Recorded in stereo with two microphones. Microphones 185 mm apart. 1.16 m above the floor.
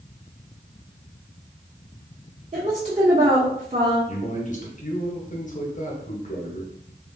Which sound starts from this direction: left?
A man speaking, at 4.1 s.